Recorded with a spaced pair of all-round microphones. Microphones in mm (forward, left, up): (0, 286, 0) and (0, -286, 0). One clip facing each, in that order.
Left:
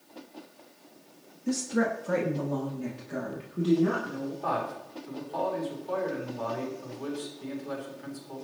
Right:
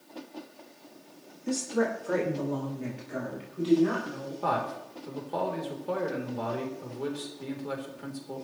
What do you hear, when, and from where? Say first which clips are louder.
1.5 s a woman speaking: left 1 dB; 35° left (ahead or behind), 2 m; by 4.3 s 70° left (ahead or behind), 4 m
4.4 s a man speaking: right 1 dB; 80° right, 3.5 m